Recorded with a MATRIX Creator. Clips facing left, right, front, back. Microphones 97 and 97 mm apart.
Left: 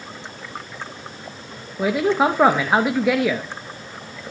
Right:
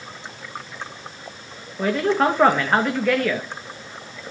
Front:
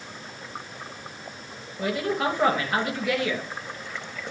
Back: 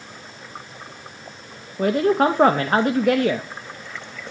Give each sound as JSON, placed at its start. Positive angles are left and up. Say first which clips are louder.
{"t": 1.8, "sound": "a man speaking", "louder": "left 1 dB, back 8 dB", "azimuth_deg": 165, "distance_m": 0.7}